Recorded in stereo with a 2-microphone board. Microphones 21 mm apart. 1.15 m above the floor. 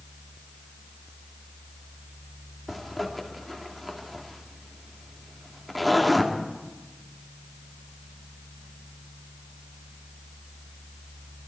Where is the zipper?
5° right (ahead or behind), 2.5 m.